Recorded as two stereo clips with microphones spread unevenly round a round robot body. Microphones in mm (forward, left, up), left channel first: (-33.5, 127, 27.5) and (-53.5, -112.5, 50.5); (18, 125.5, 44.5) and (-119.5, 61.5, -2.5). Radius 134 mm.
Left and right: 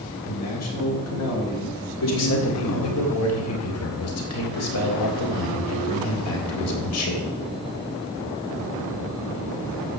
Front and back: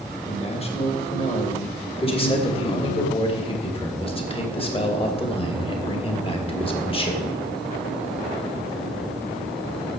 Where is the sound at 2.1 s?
85° left, 3 m.